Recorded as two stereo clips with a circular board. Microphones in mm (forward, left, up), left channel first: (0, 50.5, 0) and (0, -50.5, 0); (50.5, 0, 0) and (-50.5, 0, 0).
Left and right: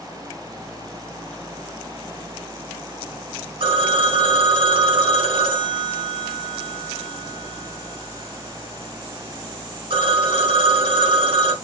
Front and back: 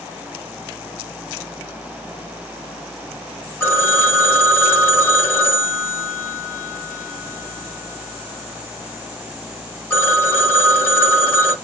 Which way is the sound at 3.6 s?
65° right.